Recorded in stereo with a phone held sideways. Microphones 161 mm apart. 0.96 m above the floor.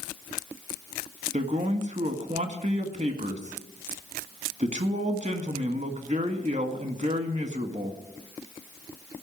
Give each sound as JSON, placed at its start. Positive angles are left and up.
{"t": 1.3, "sound": "a man speaking", "side_deg": -50, "distance_m": 1.8}